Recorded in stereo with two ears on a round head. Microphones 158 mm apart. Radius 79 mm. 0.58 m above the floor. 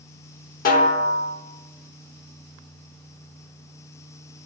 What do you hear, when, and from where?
0.7 s a snare drum: 50° left (ahead or behind), 0.9 m